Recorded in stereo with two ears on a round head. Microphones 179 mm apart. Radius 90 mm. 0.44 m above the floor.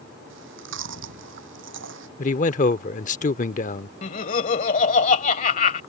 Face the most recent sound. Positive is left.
turn(degrees=40)  # may be behind; listen again after turning